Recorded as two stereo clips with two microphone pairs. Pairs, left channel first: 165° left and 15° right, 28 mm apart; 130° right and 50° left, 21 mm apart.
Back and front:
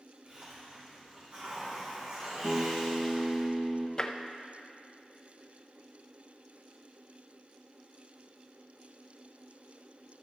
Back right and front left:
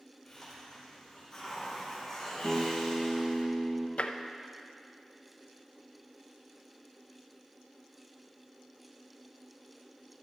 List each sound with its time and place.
0.2 s a hiss: 55° right, 4 m
2.4 s a guitar: 55° left, 1.2 m
4.0 s tapping: 135° right, 0.6 m